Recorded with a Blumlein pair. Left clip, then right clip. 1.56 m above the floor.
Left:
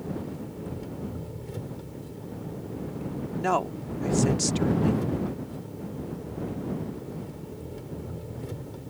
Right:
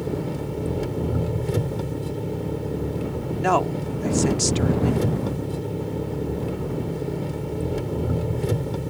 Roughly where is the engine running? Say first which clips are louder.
Right 8 dB; ahead right.